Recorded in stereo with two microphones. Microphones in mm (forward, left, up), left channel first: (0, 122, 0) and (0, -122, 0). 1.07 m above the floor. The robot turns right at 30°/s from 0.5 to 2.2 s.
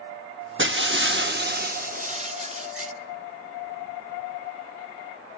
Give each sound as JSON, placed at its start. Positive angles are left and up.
{"t": 0.6, "sound": "breaking glass", "azimuth_deg": -85, "distance_m": 0.8}